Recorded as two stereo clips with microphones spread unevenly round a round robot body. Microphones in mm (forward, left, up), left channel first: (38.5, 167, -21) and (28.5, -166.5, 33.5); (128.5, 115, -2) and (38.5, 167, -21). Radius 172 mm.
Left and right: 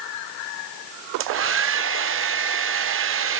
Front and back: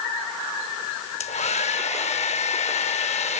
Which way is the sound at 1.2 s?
35° right.